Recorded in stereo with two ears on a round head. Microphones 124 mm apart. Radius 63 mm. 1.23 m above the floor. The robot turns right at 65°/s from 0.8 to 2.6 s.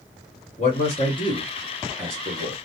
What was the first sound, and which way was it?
A man speaking, 135° left.